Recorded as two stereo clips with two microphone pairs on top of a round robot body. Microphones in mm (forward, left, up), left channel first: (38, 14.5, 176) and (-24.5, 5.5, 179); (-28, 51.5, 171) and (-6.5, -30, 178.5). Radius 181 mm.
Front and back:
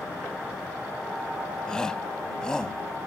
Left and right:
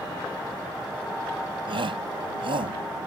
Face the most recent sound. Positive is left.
turn(degrees=-70)